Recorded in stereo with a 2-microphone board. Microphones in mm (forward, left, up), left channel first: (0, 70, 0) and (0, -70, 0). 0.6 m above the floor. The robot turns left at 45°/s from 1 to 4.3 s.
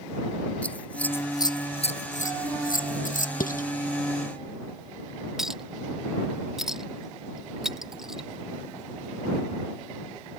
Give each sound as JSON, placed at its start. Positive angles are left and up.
{"t": 0.6, "sound": "scissors", "side_deg": 10}
{"t": 3.4, "sound": "dishes clattering", "side_deg": 90}
{"t": 5.4, "sound": "a clink", "side_deg": -5}